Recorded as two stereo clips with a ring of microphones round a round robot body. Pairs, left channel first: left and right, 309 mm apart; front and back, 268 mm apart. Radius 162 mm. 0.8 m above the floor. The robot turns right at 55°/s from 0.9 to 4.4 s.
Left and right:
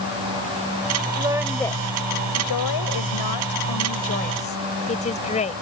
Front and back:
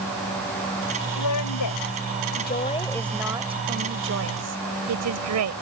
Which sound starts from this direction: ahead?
A woman speaking, at 1.2 s.